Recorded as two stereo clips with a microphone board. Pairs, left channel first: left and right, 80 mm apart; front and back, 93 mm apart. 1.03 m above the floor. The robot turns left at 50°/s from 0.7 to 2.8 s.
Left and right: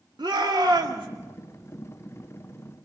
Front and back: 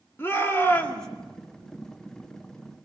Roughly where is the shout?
Ahead right.